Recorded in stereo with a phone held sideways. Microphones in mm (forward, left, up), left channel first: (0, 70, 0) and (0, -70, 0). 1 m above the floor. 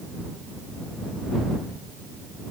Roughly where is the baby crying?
No baby crying in this recording.